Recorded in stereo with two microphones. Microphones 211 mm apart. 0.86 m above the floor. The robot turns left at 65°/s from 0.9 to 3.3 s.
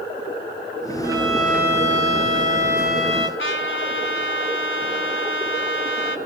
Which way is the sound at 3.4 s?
70° left (ahead or behind).